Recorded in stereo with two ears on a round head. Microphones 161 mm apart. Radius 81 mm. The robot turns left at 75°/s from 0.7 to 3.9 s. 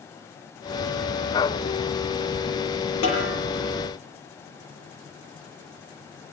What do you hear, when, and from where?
3.0 s a snare drum: 80° left, 8 m; by 3.3 s 60° left (ahead or behind), 8 m